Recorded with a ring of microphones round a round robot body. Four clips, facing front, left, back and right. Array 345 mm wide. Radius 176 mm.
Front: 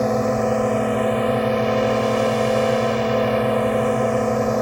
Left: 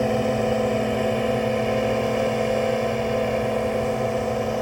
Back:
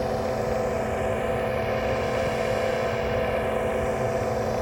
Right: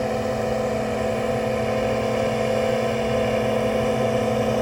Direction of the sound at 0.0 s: 25° left.